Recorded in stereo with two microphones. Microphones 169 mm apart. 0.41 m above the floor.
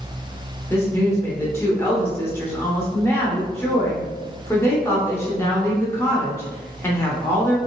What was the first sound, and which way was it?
A woman speaking, 15° left (ahead or behind).